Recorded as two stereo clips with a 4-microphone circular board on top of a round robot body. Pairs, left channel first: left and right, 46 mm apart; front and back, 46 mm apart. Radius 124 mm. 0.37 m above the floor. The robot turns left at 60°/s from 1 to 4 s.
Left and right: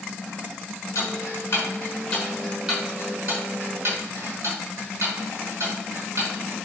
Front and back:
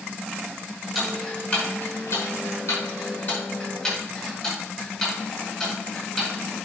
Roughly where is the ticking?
Left.